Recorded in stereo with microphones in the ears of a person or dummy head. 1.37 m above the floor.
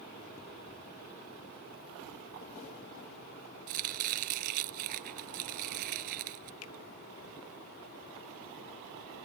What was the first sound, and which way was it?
Chopping, 50° right (ahead or behind).